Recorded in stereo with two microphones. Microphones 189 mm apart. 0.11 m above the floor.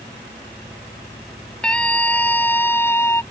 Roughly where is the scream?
Centre.